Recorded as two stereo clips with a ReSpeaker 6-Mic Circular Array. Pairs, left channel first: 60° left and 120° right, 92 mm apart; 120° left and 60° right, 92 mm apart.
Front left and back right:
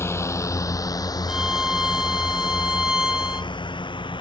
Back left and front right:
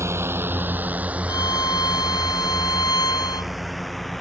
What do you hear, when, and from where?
0.0 s a drone: straight ahead; by 4.2 s 30° left
1.3 s a violin: 160° left